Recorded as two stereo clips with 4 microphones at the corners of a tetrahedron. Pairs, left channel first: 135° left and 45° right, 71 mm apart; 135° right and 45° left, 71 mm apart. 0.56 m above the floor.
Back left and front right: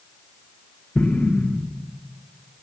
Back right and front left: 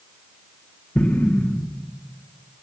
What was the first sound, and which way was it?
An explosion, straight behind.